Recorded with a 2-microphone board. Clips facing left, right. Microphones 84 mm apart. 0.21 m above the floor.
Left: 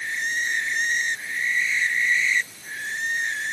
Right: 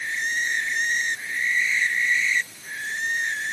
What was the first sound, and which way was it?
Only background noise.